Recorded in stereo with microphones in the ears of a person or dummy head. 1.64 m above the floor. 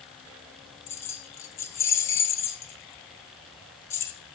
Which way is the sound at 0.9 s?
15° left (ahead or behind).